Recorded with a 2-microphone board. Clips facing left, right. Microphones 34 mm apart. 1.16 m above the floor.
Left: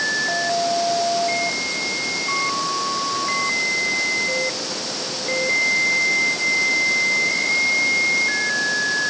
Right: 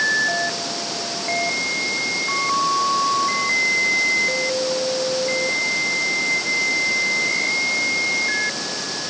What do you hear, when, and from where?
Only background noise.